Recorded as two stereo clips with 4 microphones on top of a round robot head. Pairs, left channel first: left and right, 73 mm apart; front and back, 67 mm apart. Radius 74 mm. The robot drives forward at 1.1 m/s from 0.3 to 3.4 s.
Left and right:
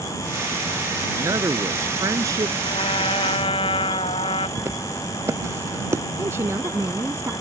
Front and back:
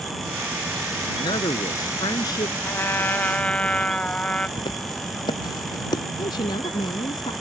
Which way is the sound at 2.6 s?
50° left.